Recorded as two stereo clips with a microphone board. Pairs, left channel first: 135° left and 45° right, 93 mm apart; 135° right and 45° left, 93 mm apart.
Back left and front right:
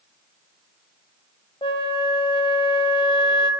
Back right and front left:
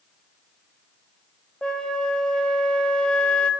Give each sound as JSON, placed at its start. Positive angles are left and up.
{"t": 1.6, "sound": "a flute", "azimuth_deg": 145, "distance_m": 0.7}